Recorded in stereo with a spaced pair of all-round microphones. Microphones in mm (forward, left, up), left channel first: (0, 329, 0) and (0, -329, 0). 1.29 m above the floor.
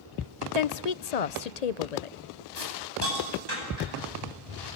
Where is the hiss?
75° right (ahead or behind), 10 m.